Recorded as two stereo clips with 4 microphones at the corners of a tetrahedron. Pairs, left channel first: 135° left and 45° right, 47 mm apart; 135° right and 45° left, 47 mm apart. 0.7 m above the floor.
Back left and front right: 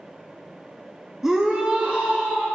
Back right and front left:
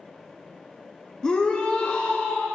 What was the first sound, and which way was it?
A shout, 100° right.